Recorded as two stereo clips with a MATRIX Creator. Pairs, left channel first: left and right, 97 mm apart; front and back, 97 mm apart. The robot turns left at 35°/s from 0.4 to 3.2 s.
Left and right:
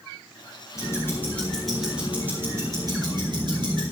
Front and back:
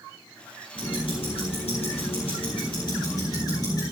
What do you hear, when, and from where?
0.8 s ticking: 35° left, 5.5 m; by 3.8 s 50° right, 5.5 m